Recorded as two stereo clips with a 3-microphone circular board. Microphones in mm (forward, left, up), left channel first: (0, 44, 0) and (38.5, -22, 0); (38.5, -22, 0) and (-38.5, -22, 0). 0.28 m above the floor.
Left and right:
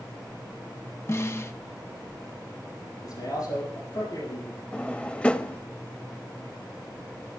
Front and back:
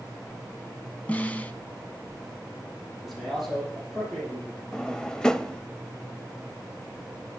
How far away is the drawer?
About 0.6 m.